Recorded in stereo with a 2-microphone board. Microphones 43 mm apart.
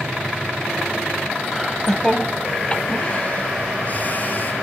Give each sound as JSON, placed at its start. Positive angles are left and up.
{"t": 1.5, "sound": "laughter", "side_deg": -5, "distance_m": 1.0}